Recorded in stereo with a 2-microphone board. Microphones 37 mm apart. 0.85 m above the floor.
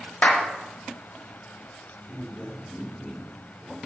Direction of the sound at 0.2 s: 40° left (ahead or behind).